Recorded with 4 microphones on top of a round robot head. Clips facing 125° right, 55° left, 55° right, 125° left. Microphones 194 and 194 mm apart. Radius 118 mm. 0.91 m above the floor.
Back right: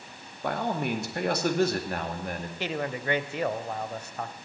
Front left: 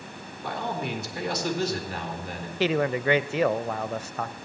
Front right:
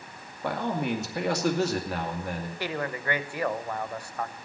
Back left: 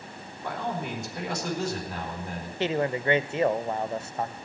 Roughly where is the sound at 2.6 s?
Ahead left.